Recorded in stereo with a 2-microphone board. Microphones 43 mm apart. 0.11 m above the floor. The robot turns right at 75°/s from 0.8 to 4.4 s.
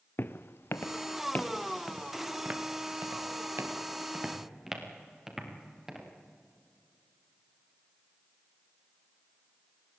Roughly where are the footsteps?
Left.